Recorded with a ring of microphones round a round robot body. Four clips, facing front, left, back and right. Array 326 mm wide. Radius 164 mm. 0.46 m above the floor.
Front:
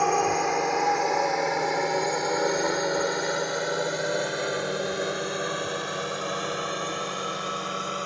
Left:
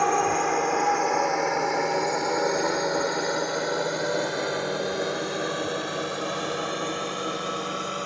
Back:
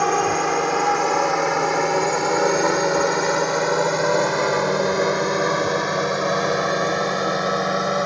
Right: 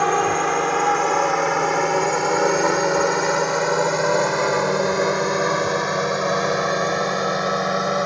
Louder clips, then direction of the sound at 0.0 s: Right 4 dB, back 4 dB; 130° right.